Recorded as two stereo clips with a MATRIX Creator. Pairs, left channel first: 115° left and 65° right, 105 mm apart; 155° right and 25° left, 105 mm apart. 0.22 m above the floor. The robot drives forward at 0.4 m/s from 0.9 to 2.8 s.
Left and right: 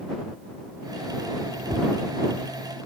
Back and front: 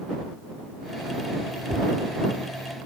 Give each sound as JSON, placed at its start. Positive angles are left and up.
{"t": 1.7, "sound": "tapping", "azimuth_deg": -10, "distance_m": 7.5}